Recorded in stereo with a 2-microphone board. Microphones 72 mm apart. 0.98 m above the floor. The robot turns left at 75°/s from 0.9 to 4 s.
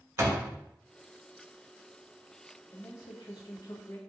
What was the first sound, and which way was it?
A door slam, 35° right (ahead or behind).